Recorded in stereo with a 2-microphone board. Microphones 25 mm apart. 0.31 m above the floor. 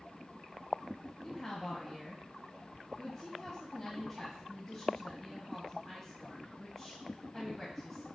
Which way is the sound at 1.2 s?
Centre (ahead or behind).